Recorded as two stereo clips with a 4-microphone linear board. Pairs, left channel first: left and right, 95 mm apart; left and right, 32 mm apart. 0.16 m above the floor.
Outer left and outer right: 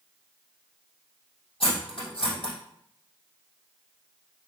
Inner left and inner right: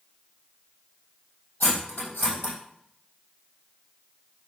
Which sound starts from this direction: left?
Cutlery clinking, at 1.6 s.